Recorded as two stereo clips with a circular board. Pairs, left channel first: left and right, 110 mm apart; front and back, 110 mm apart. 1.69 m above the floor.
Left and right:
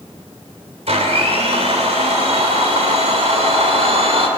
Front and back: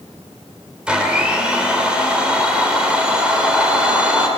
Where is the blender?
100° right, 3 m.